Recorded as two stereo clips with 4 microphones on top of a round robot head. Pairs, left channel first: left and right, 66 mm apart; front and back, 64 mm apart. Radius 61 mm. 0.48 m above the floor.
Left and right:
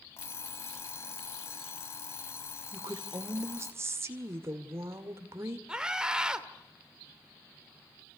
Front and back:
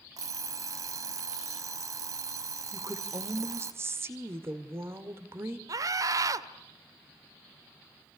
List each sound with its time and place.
0.2 s an alarm clock: 150° left, 1.7 m
2.7 s a woman speaking: 135° right, 2 m
5.7 s a scream: 170° right, 1.6 m